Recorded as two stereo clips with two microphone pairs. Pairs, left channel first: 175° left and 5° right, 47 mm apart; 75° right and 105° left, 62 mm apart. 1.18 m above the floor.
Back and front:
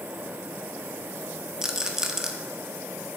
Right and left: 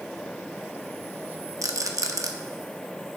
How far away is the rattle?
About 0.9 m.